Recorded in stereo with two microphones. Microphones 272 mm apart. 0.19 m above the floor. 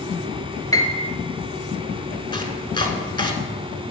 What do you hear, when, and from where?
0.7 s a piano: 15° left (ahead or behind), 0.8 m
2.3 s chopping: 15° left (ahead or behind), 0.7 m